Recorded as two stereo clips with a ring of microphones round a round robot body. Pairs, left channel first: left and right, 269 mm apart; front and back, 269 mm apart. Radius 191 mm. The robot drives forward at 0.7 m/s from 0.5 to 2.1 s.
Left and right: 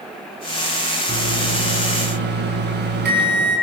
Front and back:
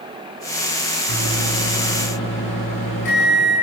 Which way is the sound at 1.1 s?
35° right.